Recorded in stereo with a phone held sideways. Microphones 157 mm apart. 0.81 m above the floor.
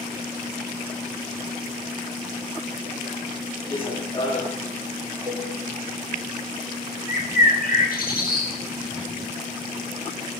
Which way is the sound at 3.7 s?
25° left (ahead or behind).